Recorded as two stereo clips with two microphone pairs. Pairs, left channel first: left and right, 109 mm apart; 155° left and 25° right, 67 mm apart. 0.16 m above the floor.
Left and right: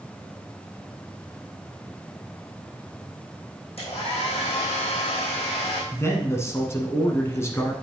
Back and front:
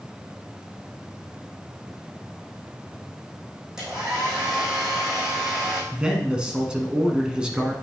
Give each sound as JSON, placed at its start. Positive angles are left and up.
{"t": 3.8, "sound": "a hair dryer", "azimuth_deg": 55, "distance_m": 3.5}
{"t": 5.9, "sound": "a man speaking", "azimuth_deg": 40, "distance_m": 1.2}